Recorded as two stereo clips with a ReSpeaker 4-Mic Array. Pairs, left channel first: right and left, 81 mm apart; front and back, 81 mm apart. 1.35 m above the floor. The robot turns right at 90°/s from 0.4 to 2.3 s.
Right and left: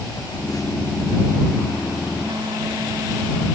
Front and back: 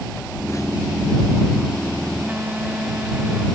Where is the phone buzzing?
65° right; by 3.5 s 105° left.